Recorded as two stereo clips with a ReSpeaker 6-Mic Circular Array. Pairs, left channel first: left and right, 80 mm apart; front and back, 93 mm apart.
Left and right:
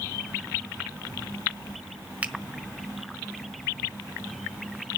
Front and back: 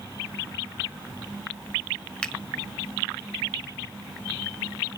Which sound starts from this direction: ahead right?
A finger snap, at 2.2 s.